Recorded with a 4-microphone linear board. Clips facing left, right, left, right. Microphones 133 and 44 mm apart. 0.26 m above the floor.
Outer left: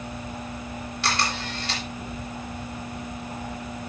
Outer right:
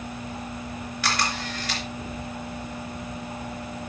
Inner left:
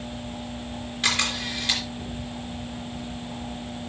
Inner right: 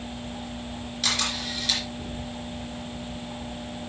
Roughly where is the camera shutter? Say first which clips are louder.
Even, inner left 3 dB; left.